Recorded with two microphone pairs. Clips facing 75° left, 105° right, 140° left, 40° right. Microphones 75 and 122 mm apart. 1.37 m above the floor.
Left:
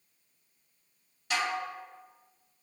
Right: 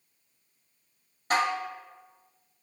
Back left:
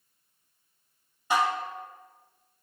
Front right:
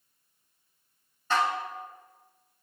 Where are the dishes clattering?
145° right, 1.0 m.